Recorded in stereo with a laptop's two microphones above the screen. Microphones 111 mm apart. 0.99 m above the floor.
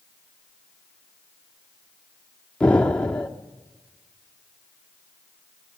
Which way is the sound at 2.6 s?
10° left (ahead or behind).